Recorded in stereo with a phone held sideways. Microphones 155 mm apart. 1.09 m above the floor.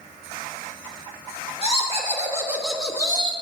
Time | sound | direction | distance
1.6 | laughter | 45° right (ahead or behind) | 1.6 m